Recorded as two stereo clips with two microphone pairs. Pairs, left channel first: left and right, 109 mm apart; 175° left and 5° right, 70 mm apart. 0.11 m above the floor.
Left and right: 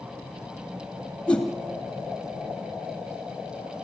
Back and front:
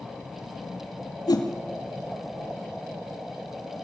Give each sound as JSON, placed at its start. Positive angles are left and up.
{"t": 1.3, "sound": "a whoosh", "azimuth_deg": 170, "distance_m": 3.0}